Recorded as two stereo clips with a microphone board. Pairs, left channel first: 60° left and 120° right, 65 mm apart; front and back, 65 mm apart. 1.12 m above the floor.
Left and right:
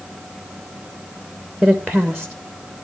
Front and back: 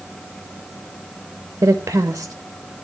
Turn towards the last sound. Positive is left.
turn(degrees=145)